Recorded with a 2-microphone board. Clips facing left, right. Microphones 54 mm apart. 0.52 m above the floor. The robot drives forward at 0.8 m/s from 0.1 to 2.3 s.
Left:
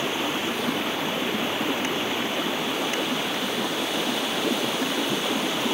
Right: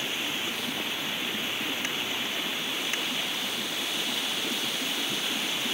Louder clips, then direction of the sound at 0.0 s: Left 6 dB; 65° left (ahead or behind).